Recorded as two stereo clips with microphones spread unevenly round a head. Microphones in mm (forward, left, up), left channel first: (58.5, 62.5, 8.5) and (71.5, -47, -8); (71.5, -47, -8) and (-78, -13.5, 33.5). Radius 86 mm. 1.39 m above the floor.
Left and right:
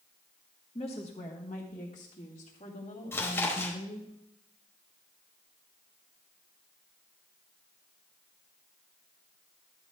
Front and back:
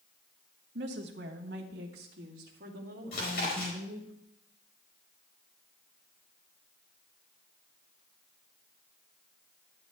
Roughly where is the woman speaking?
Behind left.